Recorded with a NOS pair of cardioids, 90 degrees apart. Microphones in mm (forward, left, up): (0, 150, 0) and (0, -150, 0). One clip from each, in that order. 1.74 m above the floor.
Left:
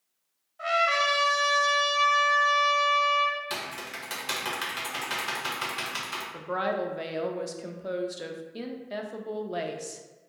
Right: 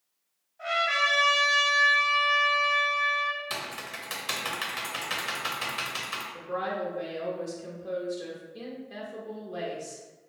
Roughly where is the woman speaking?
Ahead left.